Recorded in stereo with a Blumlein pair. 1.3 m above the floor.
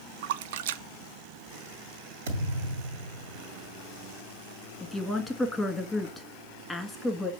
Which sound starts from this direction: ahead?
A woman speaking, at 4.8 s.